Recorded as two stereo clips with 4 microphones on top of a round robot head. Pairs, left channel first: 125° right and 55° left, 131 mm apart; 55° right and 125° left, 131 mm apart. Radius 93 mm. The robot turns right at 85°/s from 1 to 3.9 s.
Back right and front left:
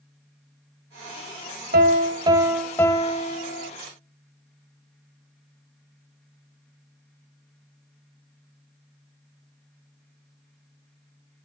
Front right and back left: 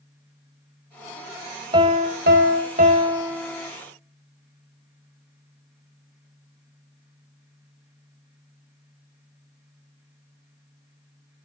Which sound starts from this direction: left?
A piano, at 1.7 s.